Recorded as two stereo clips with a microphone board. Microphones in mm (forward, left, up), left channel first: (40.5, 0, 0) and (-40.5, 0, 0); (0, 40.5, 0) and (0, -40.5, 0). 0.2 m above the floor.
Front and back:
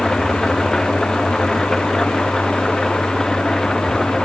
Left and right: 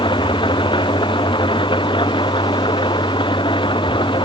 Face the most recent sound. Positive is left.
turn(degrees=85)